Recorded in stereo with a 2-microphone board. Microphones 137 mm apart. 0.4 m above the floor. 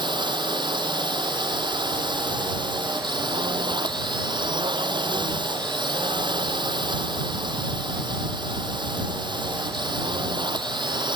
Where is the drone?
35° right (ahead or behind).